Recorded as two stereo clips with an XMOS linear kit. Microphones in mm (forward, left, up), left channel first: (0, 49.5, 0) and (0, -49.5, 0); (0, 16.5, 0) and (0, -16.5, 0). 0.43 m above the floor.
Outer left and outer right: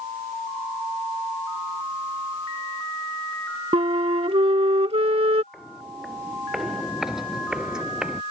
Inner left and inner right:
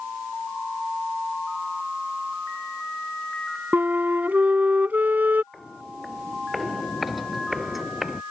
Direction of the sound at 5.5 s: Centre (ahead or behind).